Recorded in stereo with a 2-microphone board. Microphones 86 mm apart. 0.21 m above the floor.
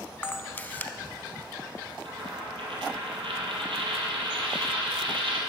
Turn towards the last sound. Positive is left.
turn(degrees=-80)